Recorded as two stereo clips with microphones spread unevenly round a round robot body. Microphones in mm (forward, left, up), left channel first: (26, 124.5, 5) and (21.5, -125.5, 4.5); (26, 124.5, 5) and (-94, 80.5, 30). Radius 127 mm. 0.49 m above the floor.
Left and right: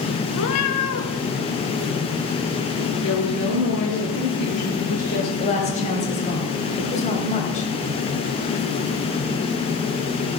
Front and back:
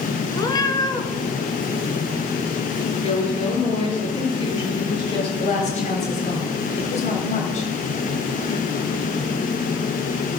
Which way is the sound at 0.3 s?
80° left.